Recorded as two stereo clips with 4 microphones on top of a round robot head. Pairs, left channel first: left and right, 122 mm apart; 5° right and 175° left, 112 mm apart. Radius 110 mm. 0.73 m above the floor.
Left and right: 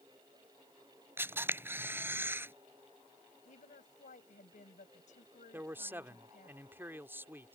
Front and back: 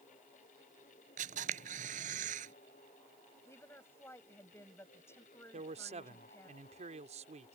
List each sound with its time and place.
1.2 s a camera shutter: 160° right
3.5 s a woman speaking: 65° left
5.5 s a man speaking: 160° right